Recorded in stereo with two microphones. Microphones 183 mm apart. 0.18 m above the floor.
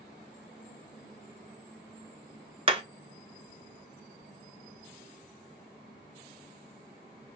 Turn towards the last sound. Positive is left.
turn(degrees=-30)  # may be behind; listen again after turning